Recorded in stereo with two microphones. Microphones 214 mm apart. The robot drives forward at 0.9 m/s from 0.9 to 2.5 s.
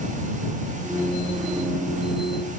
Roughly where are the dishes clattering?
No dishes clattering in this recording.